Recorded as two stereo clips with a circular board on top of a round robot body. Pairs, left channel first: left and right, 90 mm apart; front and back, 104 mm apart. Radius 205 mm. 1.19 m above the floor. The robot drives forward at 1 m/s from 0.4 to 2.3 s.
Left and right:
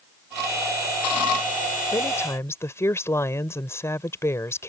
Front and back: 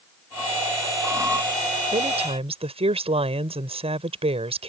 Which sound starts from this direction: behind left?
A woman speaking, at 1.9 s.